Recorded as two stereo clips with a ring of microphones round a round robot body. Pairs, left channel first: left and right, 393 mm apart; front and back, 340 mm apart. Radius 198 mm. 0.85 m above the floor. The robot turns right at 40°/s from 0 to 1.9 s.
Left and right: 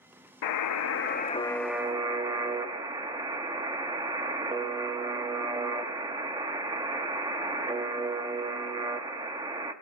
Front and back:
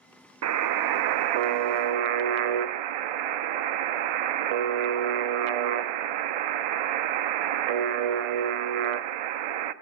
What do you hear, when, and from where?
0.4 s a buzzer: 130° left, 0.6 m; by 9.7 s 170° right, 0.6 m